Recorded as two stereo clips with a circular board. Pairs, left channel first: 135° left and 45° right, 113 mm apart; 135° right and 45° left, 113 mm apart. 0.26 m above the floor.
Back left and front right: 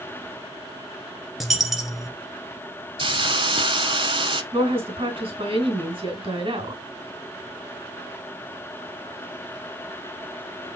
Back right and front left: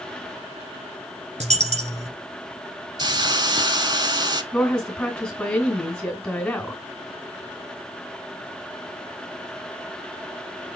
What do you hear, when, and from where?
1.4 s a dropped coin: 45° left, 1.5 m
3.0 s a hiss: 5° right, 0.8 m
4.5 s a woman speaking: 55° right, 2.5 m